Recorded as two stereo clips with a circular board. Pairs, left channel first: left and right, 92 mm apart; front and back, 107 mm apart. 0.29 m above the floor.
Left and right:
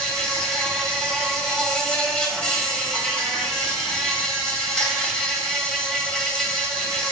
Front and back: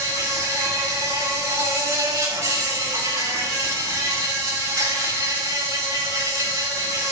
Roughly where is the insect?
Behind.